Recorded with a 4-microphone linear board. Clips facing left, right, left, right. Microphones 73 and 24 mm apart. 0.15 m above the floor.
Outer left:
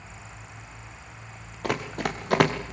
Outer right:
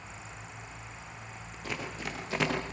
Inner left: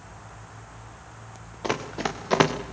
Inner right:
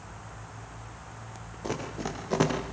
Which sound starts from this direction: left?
Running footsteps, at 1.6 s.